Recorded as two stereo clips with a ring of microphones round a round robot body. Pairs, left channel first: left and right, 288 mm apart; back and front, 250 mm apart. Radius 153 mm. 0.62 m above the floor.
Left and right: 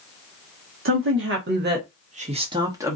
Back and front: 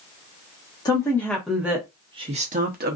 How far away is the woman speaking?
About 1.1 m.